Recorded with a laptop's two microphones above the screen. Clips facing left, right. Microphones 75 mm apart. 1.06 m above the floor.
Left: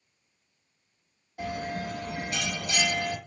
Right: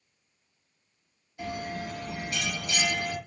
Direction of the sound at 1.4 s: 60° left (ahead or behind).